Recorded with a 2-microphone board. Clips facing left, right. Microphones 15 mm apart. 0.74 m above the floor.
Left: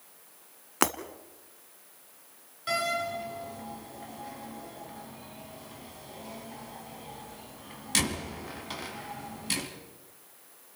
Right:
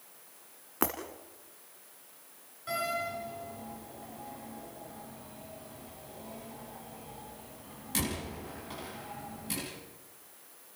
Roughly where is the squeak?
No squeak in this recording.